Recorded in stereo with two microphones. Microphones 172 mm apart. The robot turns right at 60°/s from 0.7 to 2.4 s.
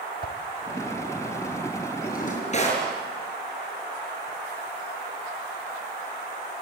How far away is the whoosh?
About 1.3 m.